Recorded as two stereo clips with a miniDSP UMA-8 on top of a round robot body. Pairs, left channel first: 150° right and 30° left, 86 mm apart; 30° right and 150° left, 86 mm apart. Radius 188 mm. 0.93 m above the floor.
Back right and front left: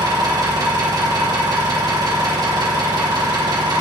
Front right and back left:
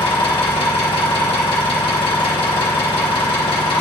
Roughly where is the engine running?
Ahead.